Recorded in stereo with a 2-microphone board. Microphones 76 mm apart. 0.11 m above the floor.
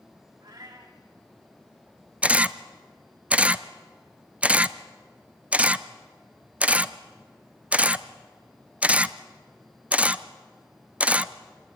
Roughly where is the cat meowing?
Right.